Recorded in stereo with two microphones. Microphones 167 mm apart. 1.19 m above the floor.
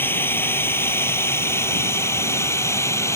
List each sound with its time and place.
0.0 s a drone: 15° left (ahead or behind)